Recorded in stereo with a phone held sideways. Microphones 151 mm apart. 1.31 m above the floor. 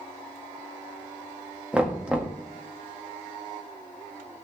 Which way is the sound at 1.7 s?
10° right (ahead or behind).